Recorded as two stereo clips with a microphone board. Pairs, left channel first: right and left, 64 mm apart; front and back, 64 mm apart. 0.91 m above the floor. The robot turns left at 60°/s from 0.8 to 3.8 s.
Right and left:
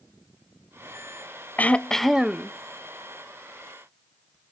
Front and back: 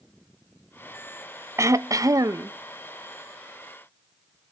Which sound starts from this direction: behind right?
Throat clearing, at 1.6 s.